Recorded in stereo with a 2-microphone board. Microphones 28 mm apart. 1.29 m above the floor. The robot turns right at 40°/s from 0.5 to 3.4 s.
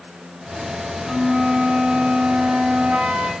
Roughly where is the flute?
Behind right.